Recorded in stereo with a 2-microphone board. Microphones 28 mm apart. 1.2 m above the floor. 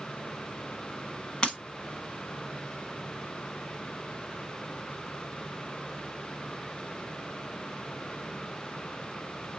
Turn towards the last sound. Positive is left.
turn(degrees=40)  # may be behind; listen again after turning